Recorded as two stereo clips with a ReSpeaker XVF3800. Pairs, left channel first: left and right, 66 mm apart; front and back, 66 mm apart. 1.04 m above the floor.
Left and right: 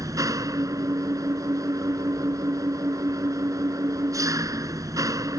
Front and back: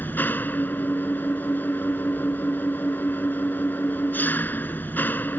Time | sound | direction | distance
0.0 | an engine running | 60° right | ?